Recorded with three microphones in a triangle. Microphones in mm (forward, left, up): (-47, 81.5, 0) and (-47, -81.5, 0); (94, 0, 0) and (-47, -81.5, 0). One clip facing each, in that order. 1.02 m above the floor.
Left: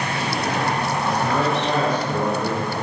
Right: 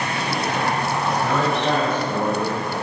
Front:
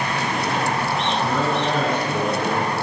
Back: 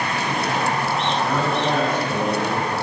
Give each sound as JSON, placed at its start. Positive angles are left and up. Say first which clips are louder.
{"t": 1.0, "sound": "a man speaking", "louder": "even, front 1 dB", "azimuth_deg": -125, "distance_m": 5.0}